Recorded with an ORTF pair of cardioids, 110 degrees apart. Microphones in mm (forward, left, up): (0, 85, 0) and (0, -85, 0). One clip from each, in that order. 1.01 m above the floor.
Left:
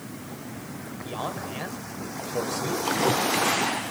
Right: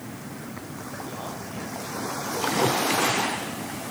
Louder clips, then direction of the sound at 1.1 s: Left 3 dB; 45° left.